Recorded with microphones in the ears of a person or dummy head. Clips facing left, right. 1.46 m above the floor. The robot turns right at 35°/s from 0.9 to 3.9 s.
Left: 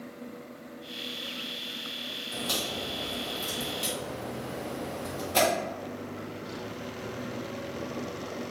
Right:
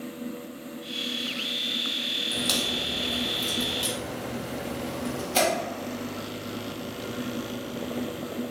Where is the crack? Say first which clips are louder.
Right 3 dB; 65° right (ahead or behind), 1.0 m; by 5.4 s 15° right (ahead or behind), 1.0 m.